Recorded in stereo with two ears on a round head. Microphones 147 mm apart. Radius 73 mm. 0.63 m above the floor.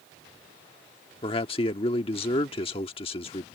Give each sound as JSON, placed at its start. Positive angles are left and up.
{"t": 1.2, "sound": "a man speaking", "side_deg": 35}